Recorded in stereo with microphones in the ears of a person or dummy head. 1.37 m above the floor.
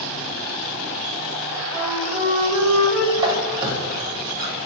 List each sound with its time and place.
1.7 s a flute: centre (ahead or behind), 0.8 m
3.2 s a squeak: 20° right (ahead or behind), 0.7 m